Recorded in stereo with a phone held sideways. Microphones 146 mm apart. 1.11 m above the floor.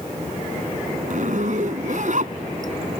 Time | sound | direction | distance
1.1 | a zipper | 60° right (ahead or behind) | ?